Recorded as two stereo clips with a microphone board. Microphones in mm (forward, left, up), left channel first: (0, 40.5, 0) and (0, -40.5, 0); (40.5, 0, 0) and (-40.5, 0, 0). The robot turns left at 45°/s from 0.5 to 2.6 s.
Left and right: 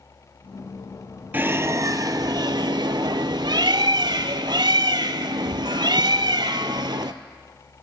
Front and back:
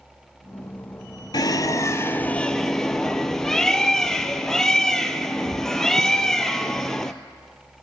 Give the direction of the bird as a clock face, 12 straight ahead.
1 o'clock.